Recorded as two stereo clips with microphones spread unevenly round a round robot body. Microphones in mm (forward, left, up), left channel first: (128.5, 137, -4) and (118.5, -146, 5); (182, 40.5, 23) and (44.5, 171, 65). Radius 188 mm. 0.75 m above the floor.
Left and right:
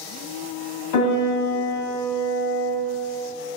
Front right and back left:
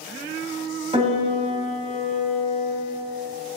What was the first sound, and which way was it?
A piano, 80° left.